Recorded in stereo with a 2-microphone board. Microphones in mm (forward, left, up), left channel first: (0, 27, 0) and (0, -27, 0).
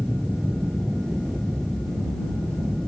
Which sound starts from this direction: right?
An aircraft, at 0.0 s.